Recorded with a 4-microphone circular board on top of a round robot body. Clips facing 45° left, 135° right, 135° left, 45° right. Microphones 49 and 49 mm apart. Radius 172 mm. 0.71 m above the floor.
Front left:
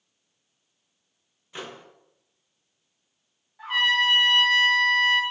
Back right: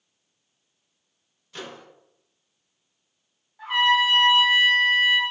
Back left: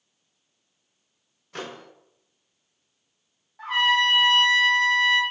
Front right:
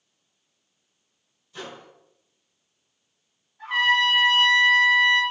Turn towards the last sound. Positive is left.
turn(degrees=130)